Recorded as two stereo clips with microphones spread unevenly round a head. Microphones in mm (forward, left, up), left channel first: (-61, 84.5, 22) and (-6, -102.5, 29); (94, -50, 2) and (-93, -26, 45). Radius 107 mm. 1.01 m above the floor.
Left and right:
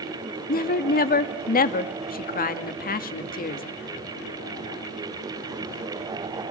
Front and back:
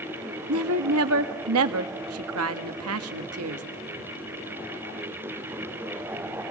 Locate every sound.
0.5 s a woman speaking: 150° left, 1.7 m